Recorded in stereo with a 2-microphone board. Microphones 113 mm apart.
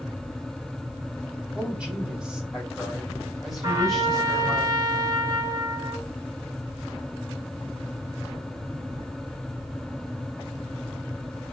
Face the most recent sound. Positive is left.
turn(degrees=-35)  # may be behind; listen again after turning